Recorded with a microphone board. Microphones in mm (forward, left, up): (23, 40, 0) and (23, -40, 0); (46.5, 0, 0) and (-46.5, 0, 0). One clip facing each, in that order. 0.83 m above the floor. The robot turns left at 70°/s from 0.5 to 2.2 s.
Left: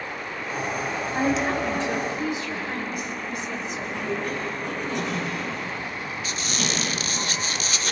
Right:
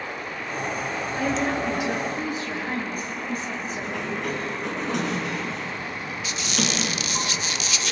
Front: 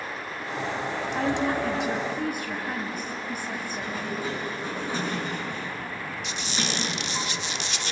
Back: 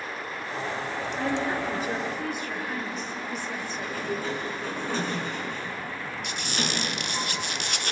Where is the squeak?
140° left, 0.7 m.